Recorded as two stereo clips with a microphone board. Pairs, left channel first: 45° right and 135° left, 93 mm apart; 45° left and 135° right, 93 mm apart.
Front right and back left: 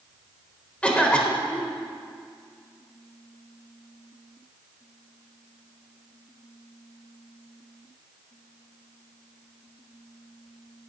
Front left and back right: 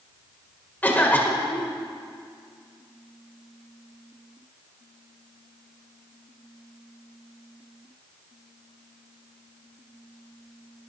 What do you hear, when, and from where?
0.8 s a cough: 10° left, 1.3 m